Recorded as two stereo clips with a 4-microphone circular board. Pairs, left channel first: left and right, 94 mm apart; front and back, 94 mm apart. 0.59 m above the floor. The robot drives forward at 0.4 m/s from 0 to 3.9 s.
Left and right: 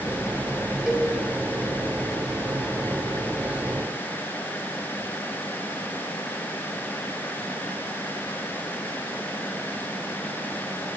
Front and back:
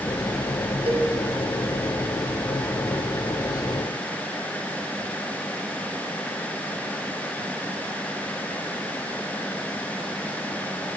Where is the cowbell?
175° right, 4 m.